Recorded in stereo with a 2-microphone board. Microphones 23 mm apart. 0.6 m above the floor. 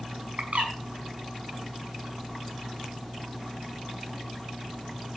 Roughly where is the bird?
Right.